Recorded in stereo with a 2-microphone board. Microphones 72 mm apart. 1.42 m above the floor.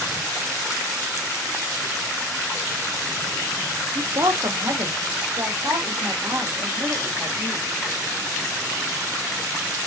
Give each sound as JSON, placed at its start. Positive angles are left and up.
{"t": 4.0, "sound": "a woman speaking", "side_deg": -50, "distance_m": 0.8}